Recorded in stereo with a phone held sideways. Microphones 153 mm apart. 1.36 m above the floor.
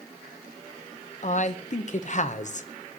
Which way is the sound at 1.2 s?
50° left (ahead or behind).